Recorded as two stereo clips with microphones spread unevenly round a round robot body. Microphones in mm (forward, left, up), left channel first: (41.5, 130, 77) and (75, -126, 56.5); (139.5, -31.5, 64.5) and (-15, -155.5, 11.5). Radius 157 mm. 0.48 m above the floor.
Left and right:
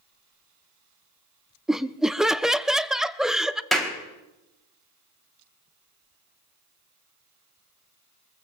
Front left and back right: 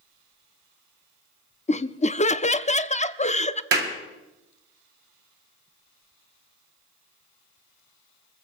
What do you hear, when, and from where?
1.7 s laughter: 5° right, 0.7 m
3.7 s a clap: 170° right, 3 m